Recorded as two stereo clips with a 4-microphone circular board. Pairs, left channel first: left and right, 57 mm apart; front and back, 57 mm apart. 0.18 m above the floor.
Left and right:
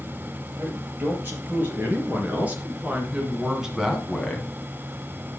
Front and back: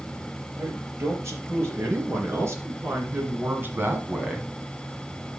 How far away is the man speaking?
About 4.5 m.